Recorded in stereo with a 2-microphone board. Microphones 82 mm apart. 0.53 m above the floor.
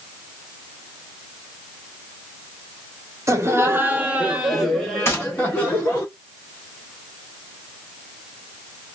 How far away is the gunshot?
About 1.3 m.